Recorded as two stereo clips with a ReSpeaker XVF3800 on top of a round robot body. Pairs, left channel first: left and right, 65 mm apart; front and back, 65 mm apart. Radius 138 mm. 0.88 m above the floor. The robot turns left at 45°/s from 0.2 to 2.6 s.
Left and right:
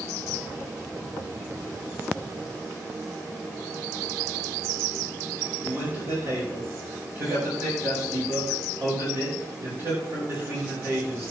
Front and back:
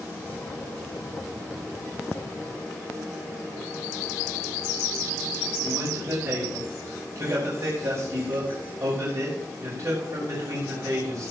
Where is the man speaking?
145° right, 5 m.